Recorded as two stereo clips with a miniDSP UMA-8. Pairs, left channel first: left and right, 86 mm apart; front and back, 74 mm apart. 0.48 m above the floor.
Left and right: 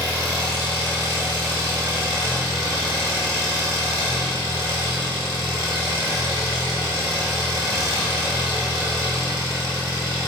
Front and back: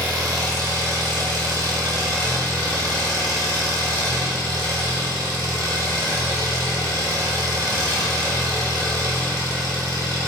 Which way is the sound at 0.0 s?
145° right.